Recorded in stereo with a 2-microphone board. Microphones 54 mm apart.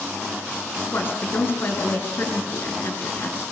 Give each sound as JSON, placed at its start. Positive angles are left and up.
{"t": 0.8, "sound": "a woman speaking", "side_deg": 45, "distance_m": 6.0}